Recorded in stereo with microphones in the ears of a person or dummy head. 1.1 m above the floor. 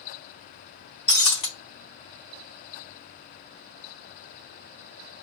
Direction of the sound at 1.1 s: 30° left (ahead or behind).